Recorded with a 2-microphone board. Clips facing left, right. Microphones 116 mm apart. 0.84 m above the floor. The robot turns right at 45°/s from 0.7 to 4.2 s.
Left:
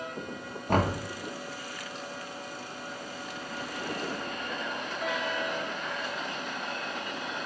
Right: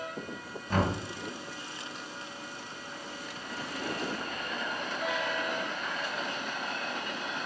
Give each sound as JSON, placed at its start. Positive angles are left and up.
{"t": 0.7, "sound": "knocking", "side_deg": 55, "distance_m": 1.3}